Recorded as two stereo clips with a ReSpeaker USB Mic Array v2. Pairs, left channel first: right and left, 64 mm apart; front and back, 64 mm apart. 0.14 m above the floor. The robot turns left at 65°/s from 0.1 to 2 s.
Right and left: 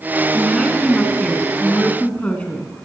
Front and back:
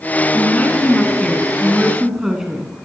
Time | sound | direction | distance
0.3 | a woman speaking | straight ahead | 1.7 m